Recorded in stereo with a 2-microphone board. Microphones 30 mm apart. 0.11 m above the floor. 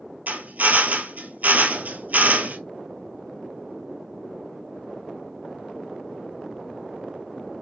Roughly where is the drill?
Right.